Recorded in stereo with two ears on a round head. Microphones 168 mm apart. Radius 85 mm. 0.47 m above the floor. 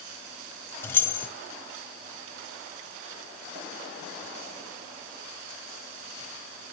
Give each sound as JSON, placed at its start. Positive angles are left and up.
{"t": 0.8, "sound": "keys jangling", "side_deg": 10, "distance_m": 2.0}